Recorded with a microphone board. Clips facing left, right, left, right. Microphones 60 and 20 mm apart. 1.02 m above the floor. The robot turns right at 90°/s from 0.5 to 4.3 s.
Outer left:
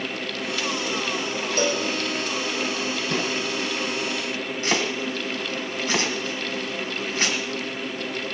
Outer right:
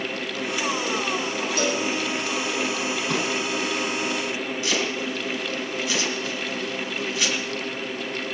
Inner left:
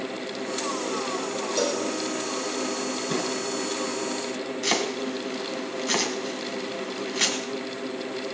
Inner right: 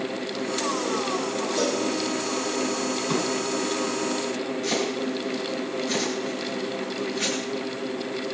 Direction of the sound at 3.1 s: 90° right.